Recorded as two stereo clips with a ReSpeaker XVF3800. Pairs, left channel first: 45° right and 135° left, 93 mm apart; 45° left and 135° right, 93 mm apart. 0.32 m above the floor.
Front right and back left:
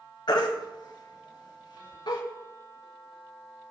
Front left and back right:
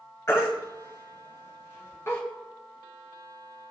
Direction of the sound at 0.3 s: 15° right.